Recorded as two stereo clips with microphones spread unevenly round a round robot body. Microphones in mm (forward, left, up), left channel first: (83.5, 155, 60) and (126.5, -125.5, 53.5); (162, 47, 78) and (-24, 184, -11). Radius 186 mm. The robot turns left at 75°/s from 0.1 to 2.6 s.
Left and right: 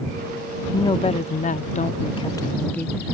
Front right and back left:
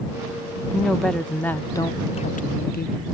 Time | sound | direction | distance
0.7 | a woman speaking | 160° left | ?